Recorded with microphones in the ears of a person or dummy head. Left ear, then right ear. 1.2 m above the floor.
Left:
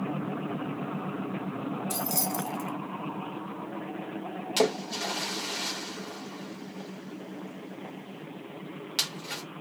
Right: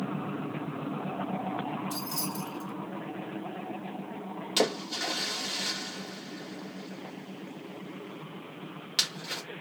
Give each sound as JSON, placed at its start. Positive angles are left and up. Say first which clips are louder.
{"t": 1.9, "sound": "keys jangling", "louder": "left 4 dB", "side_deg": 55, "distance_m": 1.4}
{"t": 4.6, "sound": "a splash", "louder": "left 1 dB", "side_deg": -5, "distance_m": 1.0}